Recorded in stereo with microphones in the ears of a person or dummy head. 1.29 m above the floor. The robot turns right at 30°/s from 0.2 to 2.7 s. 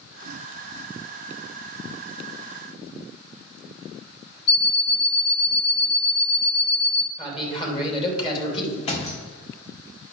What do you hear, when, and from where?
4.5 s an alarm clock: 60° left (ahead or behind), 1.5 m
7.2 s a man speaking: 25° left (ahead or behind), 2.5 m
8.8 s a thud: 40° left (ahead or behind), 1.5 m